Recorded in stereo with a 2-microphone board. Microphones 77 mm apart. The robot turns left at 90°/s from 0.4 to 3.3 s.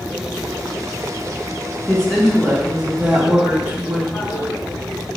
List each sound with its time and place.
1.9 s a woman speaking: 15° left (ahead or behind), 0.7 m; by 4.0 s 20° right (ahead or behind), 0.7 m
4.1 s a toilet flushing: 60° left (ahead or behind), 1.6 m